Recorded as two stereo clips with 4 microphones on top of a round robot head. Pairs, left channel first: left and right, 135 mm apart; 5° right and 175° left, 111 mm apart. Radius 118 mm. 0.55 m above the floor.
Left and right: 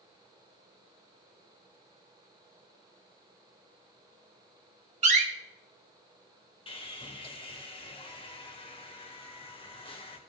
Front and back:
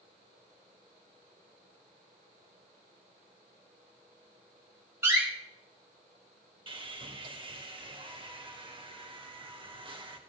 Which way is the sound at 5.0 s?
115° right.